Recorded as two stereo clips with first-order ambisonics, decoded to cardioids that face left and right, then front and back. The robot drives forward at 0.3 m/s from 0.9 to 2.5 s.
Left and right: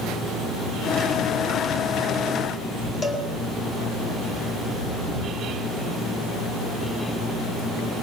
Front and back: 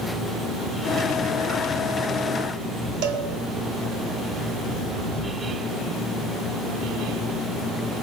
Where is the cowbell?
165° left, 4.5 m.